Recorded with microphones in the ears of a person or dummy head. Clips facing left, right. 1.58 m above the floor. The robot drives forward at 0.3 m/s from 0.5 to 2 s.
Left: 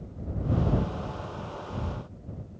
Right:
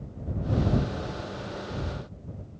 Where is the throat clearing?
No throat clearing in this recording.